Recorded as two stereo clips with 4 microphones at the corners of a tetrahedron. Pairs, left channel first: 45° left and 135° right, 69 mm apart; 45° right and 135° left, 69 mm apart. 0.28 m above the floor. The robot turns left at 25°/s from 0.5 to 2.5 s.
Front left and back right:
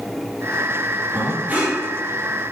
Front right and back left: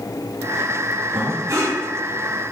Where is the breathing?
170° left, 3 m; by 1.8 s 155° left, 3 m.